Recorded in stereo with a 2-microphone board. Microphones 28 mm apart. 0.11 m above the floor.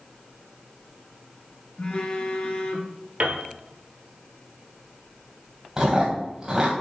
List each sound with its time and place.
1.8 s a phone buzzing: 40° left (ahead or behind), 1.4 m
3.2 s a piano: 55° right (ahead or behind), 1.3 m
5.8 s chewing: 15° right (ahead or behind), 3 m